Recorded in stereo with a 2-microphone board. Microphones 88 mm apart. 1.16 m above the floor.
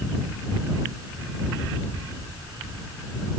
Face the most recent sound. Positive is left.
No sound to turn to.